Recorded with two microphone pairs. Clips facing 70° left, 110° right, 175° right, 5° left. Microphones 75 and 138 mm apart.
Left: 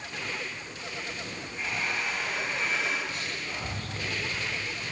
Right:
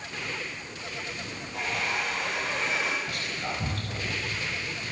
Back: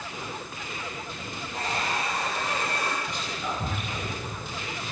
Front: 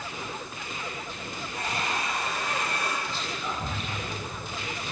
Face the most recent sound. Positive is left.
turn(degrees=-105)